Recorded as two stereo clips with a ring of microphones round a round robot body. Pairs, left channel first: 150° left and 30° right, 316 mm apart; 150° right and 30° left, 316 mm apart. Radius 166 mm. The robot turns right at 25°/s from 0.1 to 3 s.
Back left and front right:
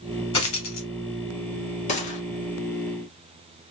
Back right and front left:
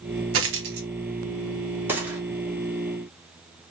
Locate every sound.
0.3 s a dropped coin: 80° left, 1.1 m; by 0.9 s 90° left, 1.1 m
1.9 s a gunshot: 105° left, 1.0 m; by 2.2 s 115° left, 1.0 m